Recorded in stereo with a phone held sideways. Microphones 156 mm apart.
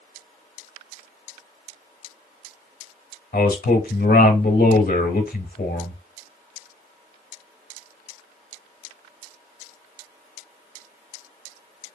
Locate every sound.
3.3 s a man speaking: 75° left (ahead or behind), 0.7 m